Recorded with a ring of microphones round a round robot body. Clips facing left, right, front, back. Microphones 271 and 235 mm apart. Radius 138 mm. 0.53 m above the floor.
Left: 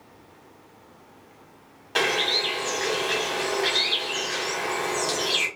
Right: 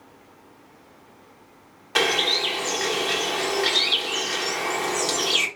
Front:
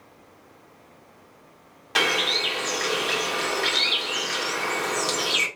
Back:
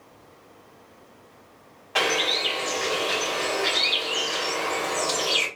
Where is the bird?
20° right, 1.5 m.